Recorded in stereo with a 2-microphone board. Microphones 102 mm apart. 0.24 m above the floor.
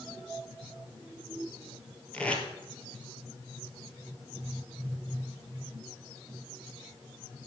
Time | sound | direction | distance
2.1 | tape being pulled | 10° left (ahead or behind) | 1.4 m